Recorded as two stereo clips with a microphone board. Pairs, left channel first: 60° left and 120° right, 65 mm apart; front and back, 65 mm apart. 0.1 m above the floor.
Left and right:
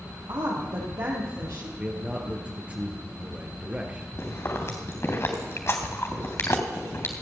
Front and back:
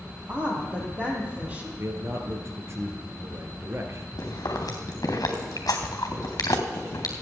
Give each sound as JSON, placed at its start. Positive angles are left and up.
{"t": 0.3, "sound": "a woman speaking", "azimuth_deg": -115, "distance_m": 4.0}
{"t": 1.8, "sound": "a man speaking", "azimuth_deg": 180, "distance_m": 2.0}
{"t": 4.2, "sound": "chewing", "azimuth_deg": 15, "distance_m": 3.5}